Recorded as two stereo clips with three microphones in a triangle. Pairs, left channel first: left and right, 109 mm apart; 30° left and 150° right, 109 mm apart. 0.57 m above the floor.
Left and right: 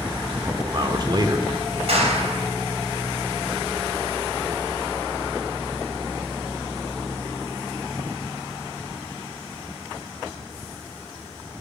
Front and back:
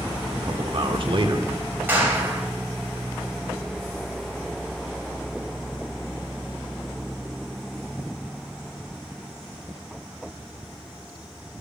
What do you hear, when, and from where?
0.4 s a man speaking: 130° right, 1.1 m
1.9 s a clap: 80° right, 3 m